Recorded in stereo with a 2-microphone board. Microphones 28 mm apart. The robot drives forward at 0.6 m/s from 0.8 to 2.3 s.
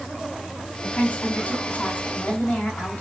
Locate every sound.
0.8 s a woman speaking: 90° left, 9 m; by 3.0 s 85° left, 9 m